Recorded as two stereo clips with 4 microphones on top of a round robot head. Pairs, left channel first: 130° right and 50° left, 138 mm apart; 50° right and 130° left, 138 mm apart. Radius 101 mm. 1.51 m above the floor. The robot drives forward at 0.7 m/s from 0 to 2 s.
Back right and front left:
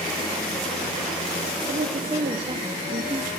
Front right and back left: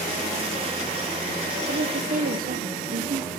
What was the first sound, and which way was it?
A woman speaking, 90° left.